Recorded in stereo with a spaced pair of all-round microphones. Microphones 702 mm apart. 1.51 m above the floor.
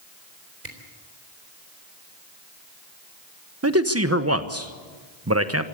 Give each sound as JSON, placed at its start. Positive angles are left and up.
{"t": 0.6, "sound": "a camera shutter", "side_deg": -75, "distance_m": 3.5}
{"t": 3.6, "sound": "a man speaking", "side_deg": -20, "distance_m": 1.1}